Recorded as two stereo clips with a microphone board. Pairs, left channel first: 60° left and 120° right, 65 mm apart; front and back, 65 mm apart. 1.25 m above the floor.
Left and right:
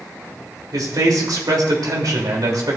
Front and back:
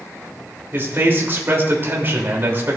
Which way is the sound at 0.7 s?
125° right.